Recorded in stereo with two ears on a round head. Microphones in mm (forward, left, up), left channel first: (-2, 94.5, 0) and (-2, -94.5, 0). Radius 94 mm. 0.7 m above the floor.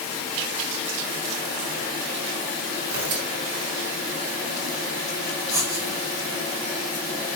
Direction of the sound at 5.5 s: 15° right (ahead or behind).